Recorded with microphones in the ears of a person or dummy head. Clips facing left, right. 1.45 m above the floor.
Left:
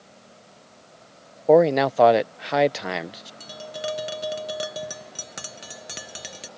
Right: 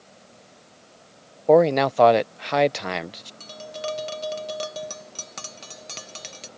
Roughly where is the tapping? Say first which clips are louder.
Even; centre.